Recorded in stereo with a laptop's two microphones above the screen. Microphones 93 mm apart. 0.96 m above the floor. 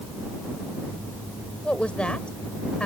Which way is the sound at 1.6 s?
10° left (ahead or behind).